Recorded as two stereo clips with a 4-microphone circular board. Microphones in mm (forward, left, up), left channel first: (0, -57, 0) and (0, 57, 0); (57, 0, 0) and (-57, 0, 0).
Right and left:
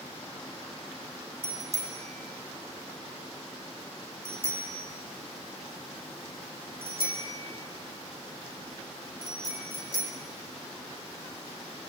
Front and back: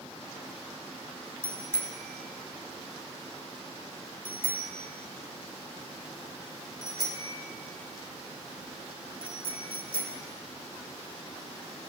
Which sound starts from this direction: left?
A bicycle bell, at 1.4 s.